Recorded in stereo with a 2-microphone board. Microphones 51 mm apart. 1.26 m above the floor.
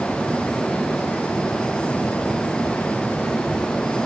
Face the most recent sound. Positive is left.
No sound to turn to.